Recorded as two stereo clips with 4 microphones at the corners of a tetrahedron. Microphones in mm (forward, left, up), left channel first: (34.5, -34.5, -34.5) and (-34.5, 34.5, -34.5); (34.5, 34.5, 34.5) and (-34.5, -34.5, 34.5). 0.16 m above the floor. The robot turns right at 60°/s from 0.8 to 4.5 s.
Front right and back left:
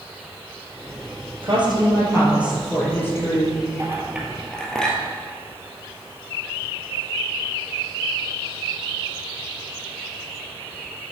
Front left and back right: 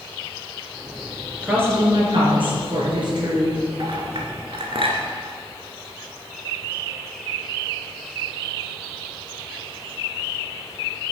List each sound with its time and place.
1.4 s a woman speaking: 150° left, 3 m; by 3.6 s 80° right, 3 m
3.8 s a clink: 170° right, 1.6 m; by 5.0 s 125° right, 1.6 m